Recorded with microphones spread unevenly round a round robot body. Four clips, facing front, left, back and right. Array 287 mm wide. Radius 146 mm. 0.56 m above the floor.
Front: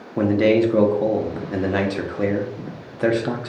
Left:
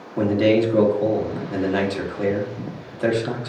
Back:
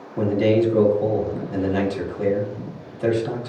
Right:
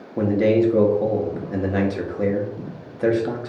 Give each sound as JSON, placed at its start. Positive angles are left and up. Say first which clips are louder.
{"t": 0.2, "sound": "a man speaking", "louder": "even, front 2 dB", "azimuth_deg": 0, "distance_m": 0.7}